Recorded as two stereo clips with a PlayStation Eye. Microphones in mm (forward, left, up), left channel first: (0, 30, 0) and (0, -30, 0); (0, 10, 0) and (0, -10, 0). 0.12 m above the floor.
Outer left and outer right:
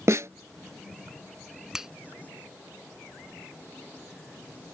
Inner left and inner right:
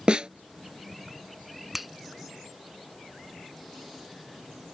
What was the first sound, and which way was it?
A snare drum, 55° right (ahead or behind).